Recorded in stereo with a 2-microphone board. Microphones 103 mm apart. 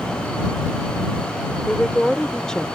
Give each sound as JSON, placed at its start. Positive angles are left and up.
{"t": 1.7, "sound": "a woman speaking", "side_deg": 5}